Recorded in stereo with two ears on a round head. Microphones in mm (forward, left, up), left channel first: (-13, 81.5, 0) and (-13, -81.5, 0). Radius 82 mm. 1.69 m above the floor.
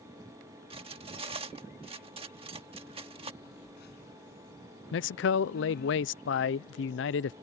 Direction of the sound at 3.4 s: 65° left (ahead or behind).